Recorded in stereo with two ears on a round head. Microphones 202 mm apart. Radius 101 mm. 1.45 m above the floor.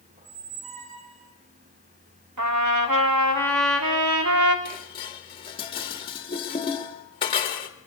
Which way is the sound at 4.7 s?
20° left (ahead or behind).